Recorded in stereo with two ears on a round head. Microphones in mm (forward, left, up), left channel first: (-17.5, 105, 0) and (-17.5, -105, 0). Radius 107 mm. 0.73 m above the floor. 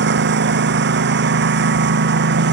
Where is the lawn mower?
50° right (ahead or behind).